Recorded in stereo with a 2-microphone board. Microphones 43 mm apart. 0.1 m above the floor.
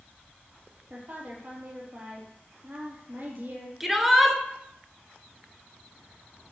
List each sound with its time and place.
0.9 s a woman speaking: 50° right (ahead or behind), 3 m
3.8 s a shout: 5° right (ahead or behind), 1.2 m